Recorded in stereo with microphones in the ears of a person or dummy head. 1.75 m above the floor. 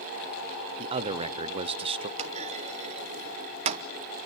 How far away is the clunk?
About 1.0 m.